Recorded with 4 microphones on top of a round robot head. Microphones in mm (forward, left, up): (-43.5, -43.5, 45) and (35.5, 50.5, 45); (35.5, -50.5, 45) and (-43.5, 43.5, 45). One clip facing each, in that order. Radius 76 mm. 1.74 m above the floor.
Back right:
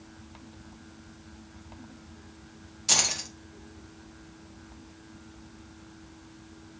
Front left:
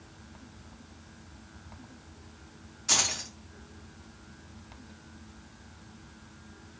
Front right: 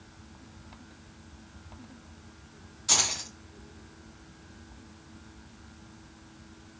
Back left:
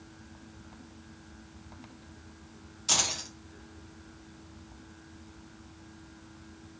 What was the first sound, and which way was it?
Keys jangling, 155° right.